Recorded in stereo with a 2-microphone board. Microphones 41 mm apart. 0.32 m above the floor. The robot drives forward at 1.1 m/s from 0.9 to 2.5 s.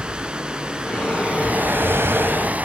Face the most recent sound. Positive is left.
turn(degrees=-40)  # may be behind; listen again after turning